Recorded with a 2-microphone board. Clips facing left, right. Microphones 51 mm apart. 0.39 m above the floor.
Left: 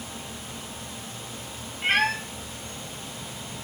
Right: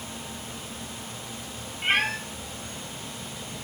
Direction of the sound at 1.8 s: 20° right (ahead or behind).